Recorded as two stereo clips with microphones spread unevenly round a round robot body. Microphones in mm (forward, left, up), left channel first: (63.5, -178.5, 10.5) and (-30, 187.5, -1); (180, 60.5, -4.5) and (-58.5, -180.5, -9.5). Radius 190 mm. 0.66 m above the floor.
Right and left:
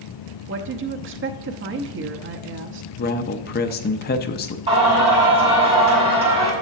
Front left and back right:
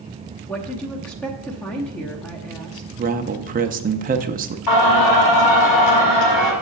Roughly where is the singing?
Ahead left.